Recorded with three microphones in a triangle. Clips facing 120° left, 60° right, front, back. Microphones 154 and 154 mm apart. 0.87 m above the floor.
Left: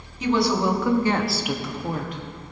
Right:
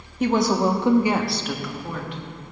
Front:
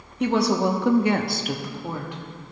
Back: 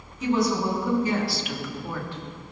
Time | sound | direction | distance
0.2 | a woman speaking | 20° right | 1.3 m